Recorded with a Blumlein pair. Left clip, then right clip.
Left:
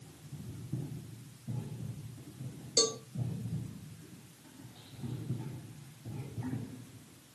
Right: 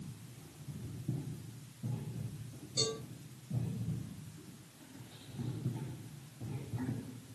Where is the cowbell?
55° left, 0.8 m.